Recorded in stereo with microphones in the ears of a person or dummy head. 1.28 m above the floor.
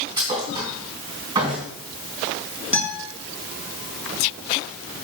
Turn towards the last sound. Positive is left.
turn(degrees=40)  # may be behind; listen again after turning